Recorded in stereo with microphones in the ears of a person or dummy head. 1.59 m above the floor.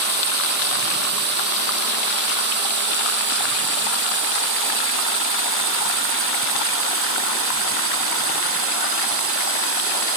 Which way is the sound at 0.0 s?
50° right (ahead or behind).